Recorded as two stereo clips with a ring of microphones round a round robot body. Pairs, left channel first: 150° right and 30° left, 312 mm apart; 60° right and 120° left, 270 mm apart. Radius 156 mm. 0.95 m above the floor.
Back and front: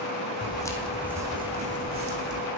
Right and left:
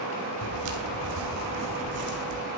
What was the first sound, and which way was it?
Footsteps, 140° left.